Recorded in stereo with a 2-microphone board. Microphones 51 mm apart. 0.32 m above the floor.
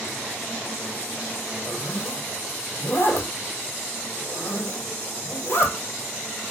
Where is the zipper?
55° left (ahead or behind), 3 m.